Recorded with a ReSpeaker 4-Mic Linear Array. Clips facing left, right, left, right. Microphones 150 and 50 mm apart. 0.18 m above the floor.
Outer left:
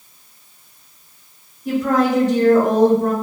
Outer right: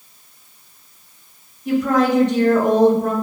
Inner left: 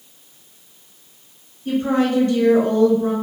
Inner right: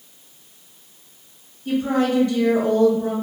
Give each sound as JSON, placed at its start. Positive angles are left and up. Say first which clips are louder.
{"t": 1.6, "sound": "a woman speaking", "louder": "even, inner left 1 dB", "side_deg": 35, "distance_m": 1.8}